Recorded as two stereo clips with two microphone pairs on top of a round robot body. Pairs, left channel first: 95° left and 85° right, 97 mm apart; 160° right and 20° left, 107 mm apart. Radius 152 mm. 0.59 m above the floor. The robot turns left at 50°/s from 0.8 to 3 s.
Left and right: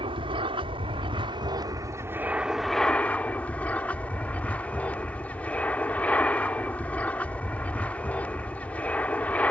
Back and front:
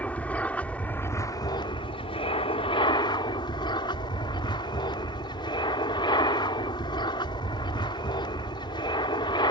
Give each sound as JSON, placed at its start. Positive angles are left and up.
{"t": 0.0, "sound": "an aircraft", "azimuth_deg": -80}